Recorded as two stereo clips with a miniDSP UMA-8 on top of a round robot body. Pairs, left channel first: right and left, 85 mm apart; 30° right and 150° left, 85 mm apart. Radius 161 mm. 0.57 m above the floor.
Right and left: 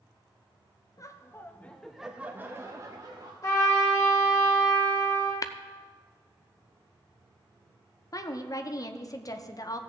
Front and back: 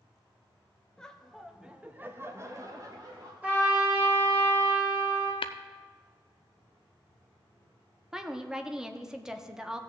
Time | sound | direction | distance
1.0 | laughter | 105° right | 1.3 m
3.4 | a trumpet | 140° right | 3.5 m
5.4 | tapping | 40° right | 0.5 m
8.1 | a woman speaking | 130° right | 1.1 m